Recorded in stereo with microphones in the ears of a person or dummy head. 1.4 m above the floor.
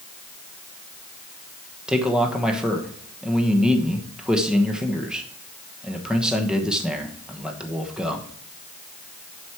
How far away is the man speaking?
About 1.1 m.